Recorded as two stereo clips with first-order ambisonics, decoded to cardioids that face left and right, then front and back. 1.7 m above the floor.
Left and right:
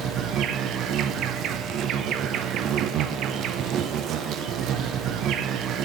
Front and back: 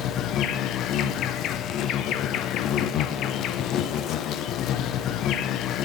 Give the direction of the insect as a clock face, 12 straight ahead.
1 o'clock.